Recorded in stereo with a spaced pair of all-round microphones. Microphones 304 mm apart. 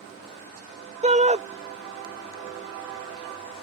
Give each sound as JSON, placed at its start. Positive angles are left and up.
{"t": 1.0, "sound": "a shout", "side_deg": -25}